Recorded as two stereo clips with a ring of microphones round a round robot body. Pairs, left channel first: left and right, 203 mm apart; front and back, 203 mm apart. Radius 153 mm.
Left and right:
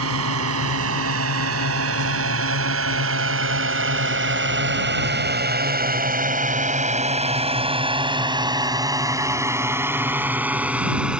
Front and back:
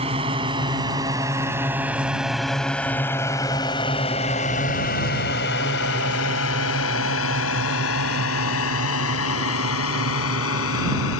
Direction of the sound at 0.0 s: 110° right.